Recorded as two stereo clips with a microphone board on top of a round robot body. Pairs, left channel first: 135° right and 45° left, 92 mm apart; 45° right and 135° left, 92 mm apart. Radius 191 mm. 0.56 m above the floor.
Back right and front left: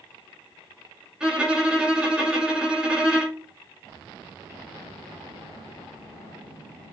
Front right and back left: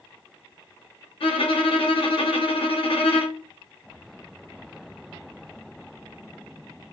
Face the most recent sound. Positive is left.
turn(degrees=-35)